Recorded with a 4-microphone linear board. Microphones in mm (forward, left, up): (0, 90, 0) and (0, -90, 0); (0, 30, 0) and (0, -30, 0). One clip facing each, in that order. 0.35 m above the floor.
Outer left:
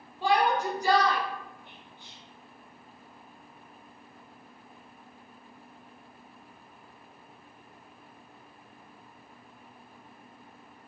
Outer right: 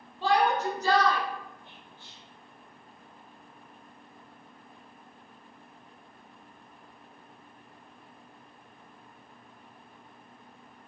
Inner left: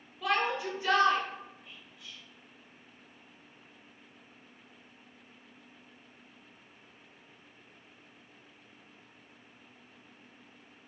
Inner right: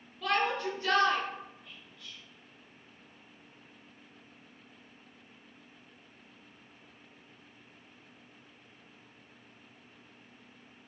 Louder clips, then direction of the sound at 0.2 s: Even, even; 15° left (ahead or behind).